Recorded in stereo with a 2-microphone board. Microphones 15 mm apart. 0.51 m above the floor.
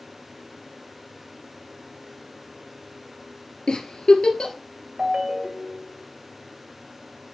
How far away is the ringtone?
About 1.7 m.